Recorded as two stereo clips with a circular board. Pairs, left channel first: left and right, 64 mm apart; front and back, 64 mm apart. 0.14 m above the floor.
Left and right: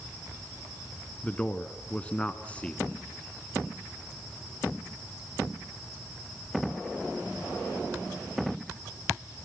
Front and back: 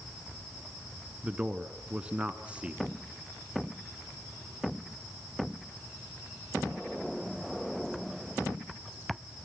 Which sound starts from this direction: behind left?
A man speaking, at 1.2 s.